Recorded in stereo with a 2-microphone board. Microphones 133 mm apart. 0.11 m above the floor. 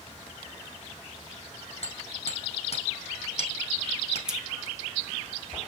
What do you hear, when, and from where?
1.8 s hammering: 55° left (ahead or behind), 5 m
4.3 s scissors: 5° right (ahead or behind), 1.9 m